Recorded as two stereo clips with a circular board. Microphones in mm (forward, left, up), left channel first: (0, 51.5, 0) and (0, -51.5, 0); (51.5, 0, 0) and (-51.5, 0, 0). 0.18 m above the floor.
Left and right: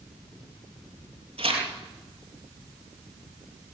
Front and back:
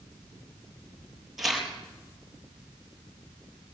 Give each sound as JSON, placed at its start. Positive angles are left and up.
{"t": 1.4, "sound": "tearing paper", "azimuth_deg": -95, "distance_m": 5.0}